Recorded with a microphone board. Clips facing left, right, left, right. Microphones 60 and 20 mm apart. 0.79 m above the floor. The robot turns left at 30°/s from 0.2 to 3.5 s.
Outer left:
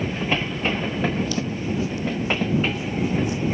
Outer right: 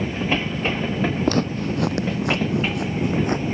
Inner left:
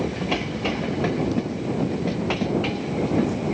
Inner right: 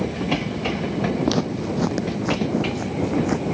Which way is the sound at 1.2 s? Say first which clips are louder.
Outer right 4 dB, inner right 3 dB; 50° right (ahead or behind).